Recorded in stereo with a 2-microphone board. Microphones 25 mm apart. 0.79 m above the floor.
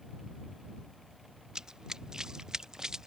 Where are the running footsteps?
30° right (ahead or behind); by 3.1 s 25° right (ahead or behind).